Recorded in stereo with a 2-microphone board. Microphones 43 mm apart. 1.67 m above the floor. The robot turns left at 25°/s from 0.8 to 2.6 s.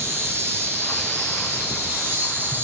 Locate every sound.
0.0 s an insect: 80° right, 5.5 m; by 2.6 s 125° right, 5.5 m